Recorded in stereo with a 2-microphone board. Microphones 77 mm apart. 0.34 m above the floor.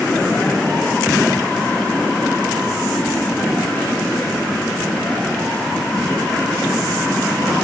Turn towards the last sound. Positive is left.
No sound to turn to.